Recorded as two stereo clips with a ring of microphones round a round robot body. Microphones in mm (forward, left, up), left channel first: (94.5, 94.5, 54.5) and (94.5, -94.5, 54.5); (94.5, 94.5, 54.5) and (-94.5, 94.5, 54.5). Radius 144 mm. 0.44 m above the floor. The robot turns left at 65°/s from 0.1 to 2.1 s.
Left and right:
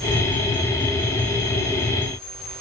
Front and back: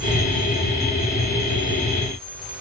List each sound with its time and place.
Only background noise.